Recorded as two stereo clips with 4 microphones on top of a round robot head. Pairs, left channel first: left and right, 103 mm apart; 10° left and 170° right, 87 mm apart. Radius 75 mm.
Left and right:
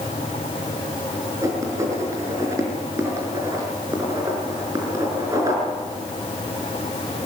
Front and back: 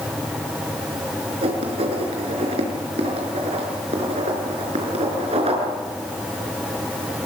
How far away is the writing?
About 5 m.